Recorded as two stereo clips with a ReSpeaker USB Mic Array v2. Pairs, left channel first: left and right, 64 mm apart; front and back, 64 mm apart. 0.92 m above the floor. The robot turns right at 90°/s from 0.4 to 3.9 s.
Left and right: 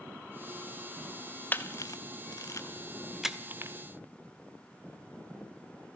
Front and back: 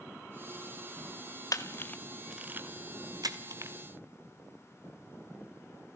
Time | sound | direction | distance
1.5 | a camera shutter | 30° left | 1.9 m